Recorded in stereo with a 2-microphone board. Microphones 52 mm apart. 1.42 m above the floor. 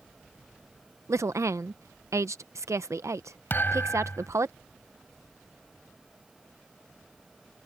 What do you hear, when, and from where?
1.1 s a woman speaking: 70° right (ahead or behind)
3.5 s a thud: 40° left (ahead or behind)